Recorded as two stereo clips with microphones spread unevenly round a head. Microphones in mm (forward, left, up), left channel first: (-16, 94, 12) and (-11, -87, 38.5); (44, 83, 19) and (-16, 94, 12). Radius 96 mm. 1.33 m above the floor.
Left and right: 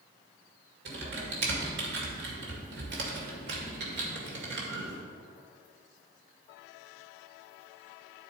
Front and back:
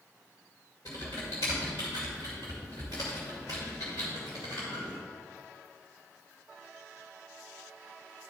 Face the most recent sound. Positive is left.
turn(degrees=-65)